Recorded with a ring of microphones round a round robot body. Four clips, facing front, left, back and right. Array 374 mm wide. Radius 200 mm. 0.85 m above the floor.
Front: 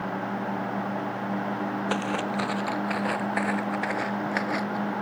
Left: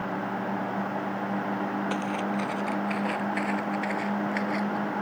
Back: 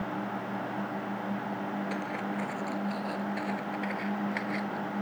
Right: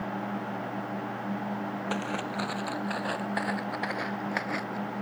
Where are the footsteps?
Straight ahead; by 4.8 s 25° right.